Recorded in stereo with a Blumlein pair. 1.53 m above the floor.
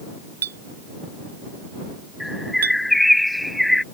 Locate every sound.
0.4 s a clink: 65° right
2.2 s a bird: 5° left